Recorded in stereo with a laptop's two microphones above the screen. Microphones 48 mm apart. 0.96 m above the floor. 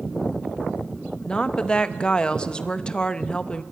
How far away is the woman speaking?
About 0.7 m.